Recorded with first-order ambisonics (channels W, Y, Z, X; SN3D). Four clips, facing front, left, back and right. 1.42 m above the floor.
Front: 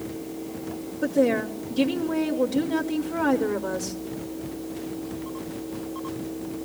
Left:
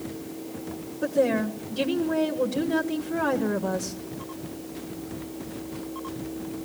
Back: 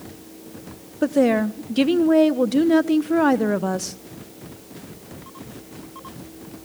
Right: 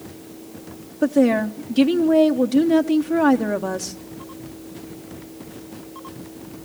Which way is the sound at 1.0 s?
145° right.